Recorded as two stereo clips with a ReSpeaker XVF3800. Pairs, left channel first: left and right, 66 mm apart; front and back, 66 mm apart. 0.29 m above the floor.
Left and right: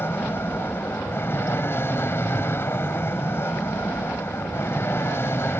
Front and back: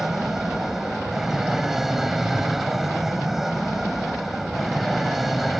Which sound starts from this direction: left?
An aircraft, at 0.0 s.